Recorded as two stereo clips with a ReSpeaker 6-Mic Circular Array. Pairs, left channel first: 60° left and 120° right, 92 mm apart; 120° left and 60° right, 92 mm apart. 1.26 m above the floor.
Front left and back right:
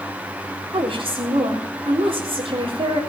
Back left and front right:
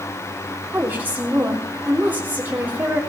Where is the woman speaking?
130° right, 3.5 m.